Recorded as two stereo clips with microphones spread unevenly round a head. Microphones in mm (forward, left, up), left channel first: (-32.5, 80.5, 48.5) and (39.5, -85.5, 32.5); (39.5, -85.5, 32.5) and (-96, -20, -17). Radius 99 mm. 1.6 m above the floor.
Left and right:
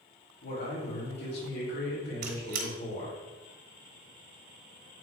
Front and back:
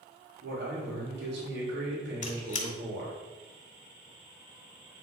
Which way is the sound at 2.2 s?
30° right.